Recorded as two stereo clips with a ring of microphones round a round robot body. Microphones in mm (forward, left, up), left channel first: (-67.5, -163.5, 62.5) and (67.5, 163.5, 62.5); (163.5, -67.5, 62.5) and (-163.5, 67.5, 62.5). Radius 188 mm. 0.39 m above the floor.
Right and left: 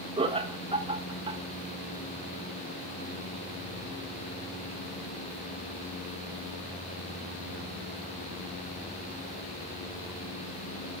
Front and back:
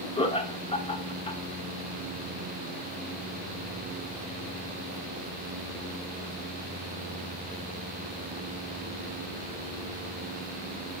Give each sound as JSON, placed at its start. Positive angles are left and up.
{"t": 0.2, "sound": "laughter", "azimuth_deg": 20, "distance_m": 1.3}